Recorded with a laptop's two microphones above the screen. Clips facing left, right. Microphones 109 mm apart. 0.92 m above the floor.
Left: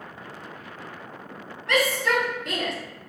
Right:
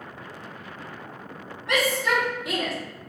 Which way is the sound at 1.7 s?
20° right (ahead or behind).